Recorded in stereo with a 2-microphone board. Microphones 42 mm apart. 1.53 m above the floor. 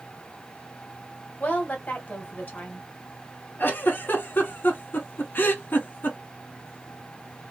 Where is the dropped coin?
I don't hear a dropped coin.